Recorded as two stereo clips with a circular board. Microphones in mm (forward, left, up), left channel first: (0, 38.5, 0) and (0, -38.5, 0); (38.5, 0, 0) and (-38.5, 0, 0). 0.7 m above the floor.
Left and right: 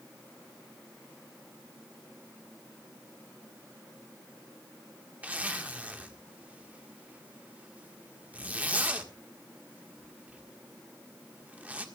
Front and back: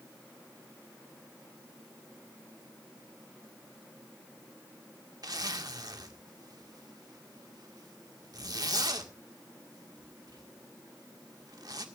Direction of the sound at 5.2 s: 160° right.